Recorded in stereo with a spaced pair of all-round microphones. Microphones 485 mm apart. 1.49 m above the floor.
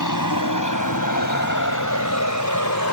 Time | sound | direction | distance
0.0 | a vehicle | 40° left (ahead or behind) | ?